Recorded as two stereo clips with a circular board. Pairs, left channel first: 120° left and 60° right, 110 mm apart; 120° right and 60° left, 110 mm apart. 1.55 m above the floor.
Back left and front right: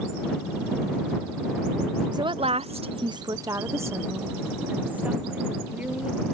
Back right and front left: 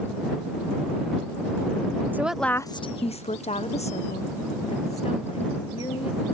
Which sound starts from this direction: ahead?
A woman speaking, at 2.1 s.